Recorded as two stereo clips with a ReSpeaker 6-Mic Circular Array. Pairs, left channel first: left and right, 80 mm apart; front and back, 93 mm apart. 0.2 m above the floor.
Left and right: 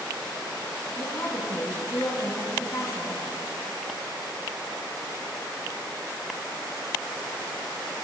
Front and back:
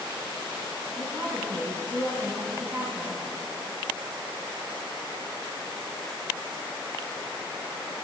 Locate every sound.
1.0 s a woman speaking: 130° left, 1.5 m